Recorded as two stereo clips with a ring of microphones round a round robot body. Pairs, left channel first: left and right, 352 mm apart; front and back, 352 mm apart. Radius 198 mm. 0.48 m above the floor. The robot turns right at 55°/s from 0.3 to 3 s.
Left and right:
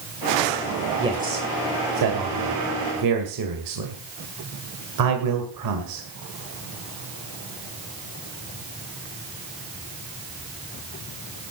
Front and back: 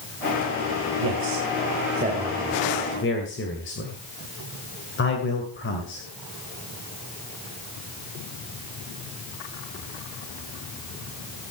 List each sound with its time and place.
1.0 s a man speaking: 170° right, 2 m; by 6.0 s 60° right, 2 m